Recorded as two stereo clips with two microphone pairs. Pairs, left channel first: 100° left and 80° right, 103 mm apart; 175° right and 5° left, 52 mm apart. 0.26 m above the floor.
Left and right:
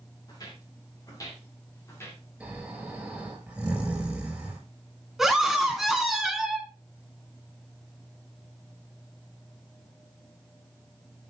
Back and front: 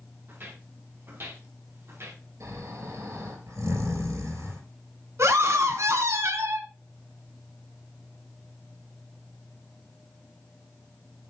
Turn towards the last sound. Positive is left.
turn(degrees=5)